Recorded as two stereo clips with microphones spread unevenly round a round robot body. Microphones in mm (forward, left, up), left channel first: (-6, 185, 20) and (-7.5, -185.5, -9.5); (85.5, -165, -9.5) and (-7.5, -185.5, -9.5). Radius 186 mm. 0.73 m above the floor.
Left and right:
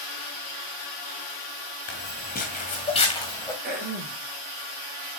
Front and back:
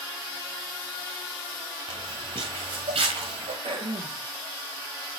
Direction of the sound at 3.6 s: 155° right.